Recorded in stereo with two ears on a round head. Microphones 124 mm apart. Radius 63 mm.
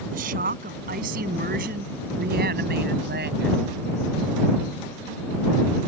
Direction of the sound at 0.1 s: 65° right (ahead or behind).